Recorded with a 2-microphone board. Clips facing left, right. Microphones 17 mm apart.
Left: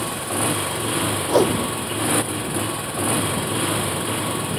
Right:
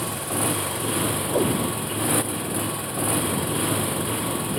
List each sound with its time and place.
0.0 s a motorcycle: 15° left (ahead or behind)
1.3 s a whoosh: 75° left (ahead or behind)